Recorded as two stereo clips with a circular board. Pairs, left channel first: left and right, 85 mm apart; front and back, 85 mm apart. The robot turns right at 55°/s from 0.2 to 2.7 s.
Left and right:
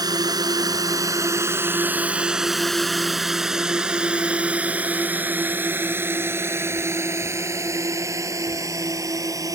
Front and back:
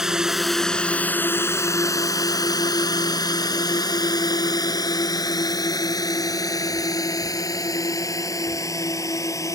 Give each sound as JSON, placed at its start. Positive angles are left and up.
{"t": 0.0, "sound": "a drone", "azimuth_deg": -95}